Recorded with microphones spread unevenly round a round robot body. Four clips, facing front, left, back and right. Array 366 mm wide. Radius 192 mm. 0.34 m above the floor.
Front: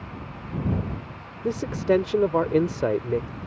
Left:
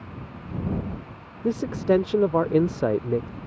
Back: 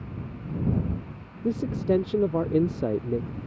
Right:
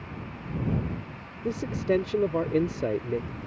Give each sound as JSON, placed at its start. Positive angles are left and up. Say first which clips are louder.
{"t": 1.4, "sound": "a man speaking", "louder": "left 5 dB, front 2 dB", "azimuth_deg": 40}